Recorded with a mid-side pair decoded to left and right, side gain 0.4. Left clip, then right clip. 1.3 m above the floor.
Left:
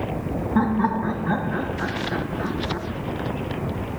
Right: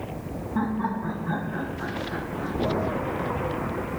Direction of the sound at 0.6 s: 60° left.